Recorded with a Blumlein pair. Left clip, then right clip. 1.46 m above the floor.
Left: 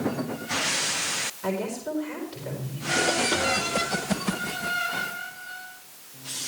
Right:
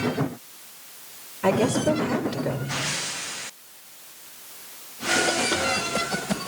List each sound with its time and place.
1.4 s a woman speaking: 65° right, 4 m